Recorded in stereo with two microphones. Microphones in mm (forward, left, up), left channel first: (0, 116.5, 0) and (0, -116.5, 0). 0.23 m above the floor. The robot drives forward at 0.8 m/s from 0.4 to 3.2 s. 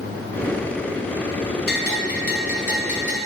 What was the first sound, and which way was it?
A bell, 50° left (ahead or behind).